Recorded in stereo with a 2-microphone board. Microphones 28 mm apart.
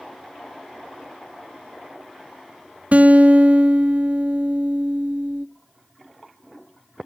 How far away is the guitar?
About 0.5 m.